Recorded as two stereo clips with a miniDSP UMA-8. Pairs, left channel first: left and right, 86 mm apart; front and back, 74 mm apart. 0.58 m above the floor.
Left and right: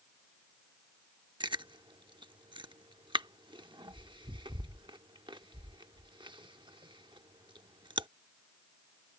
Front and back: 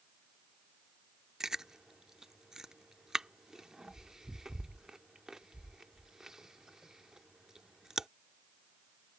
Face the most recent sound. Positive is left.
turn(degrees=-95)